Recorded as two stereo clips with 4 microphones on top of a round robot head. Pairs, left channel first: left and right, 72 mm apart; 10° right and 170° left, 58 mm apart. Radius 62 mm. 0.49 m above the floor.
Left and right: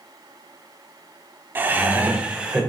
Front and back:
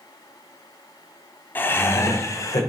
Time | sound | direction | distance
1.6 | laughter | 45° right | 1.0 m